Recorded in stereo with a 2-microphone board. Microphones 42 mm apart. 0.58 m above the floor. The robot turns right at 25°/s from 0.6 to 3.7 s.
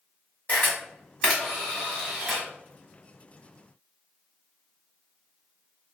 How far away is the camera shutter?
About 1.9 m.